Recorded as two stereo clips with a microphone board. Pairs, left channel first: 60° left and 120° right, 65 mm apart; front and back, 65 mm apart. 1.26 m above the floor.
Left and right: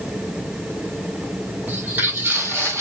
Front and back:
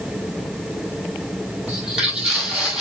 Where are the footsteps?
115° right, 1.3 m; by 2.8 s 100° right, 1.7 m.